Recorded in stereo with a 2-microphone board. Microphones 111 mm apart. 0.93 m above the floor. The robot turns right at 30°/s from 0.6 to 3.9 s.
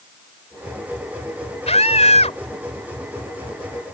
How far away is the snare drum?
I don't hear a snare drum.